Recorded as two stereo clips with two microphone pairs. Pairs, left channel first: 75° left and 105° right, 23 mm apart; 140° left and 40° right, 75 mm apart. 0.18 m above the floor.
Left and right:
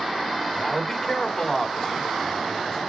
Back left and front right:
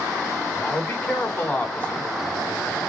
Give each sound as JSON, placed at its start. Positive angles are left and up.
{"t": 0.5, "sound": "a man speaking", "azimuth_deg": 90, "distance_m": 1.9}